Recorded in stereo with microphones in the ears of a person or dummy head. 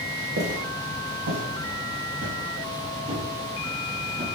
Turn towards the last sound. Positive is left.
turn(degrees=-25)  # may be behind; listen again after turning